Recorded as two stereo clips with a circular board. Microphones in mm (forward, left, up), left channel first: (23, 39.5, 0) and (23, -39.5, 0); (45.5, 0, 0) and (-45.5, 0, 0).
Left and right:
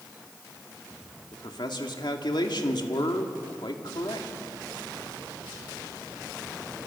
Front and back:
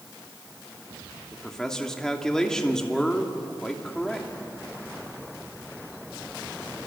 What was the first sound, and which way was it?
A man speaking, 85° left.